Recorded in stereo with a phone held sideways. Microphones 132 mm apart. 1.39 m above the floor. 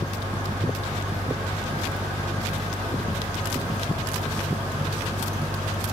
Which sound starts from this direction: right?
A fan, at 0.0 s.